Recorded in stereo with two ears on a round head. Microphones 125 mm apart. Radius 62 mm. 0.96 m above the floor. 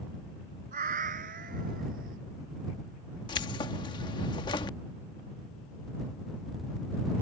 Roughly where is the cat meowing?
Right.